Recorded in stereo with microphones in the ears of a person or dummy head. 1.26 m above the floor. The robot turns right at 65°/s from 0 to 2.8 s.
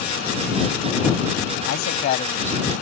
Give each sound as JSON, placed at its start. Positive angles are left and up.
{"t": 1.6, "sound": "a man speaking", "azimuth_deg": 110}